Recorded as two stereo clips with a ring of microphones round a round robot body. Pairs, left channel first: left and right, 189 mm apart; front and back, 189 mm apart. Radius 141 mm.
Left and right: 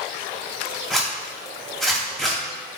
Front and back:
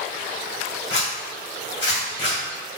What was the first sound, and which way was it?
A zipper, straight ahead.